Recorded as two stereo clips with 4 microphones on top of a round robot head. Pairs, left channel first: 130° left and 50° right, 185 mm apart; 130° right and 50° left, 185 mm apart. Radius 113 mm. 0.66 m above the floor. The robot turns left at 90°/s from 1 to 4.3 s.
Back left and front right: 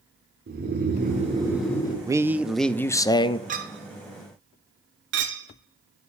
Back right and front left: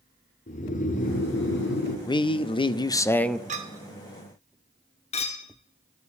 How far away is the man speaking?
About 0.6 m.